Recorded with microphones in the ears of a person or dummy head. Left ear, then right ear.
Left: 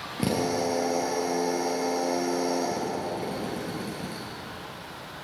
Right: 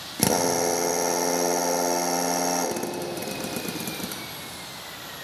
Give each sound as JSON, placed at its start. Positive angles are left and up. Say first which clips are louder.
{"t": 0.2, "sound": "a drill", "louder": "right 4 dB", "side_deg": -60, "distance_m": 1.0}